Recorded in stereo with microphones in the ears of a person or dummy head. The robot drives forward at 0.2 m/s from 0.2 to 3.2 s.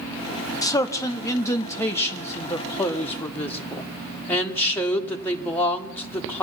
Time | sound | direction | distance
0.6 | a man speaking | 20° left (ahead or behind) | 1.0 m